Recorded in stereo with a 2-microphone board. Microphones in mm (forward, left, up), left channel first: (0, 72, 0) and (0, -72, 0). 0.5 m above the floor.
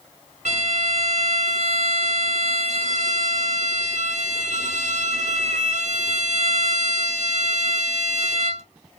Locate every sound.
0.5 s a violin: 60° right (ahead or behind), 0.9 m